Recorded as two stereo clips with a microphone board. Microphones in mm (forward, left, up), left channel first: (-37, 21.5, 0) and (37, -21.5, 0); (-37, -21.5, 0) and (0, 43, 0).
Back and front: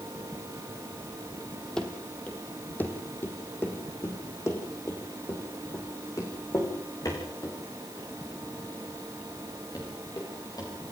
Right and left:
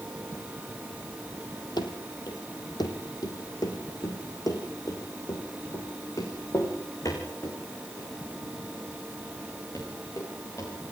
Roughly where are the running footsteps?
Behind right.